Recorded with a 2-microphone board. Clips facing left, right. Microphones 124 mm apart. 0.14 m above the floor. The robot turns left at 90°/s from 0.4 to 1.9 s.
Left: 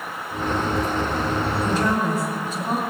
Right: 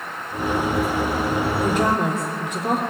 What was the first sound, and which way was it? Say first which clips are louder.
A woman speaking: right 2 dB; 55° right (ahead or behind).